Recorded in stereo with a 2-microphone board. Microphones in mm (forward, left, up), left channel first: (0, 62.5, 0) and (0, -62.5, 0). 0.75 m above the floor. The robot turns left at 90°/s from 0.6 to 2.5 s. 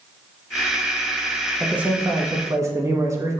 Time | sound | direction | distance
1.6 | a man speaking | 5° right (ahead or behind) | 0.6 m